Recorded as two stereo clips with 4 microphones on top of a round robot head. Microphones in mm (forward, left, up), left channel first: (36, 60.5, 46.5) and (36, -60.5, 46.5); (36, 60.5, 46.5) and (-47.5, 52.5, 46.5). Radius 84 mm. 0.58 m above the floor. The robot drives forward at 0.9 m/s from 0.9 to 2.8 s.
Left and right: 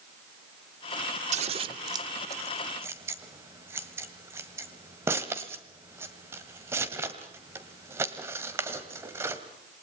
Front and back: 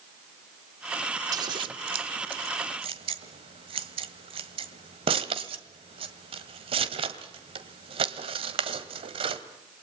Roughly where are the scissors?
Behind right.